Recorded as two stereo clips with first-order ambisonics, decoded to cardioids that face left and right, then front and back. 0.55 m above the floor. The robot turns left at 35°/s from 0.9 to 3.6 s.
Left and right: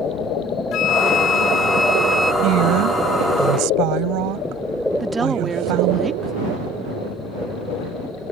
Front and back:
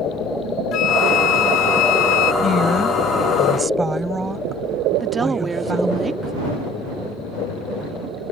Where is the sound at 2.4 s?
60° right; by 6.0 s 100° right.